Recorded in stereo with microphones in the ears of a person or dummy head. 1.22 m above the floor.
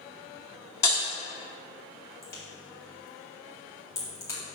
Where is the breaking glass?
15° left (ahead or behind), 1.5 m.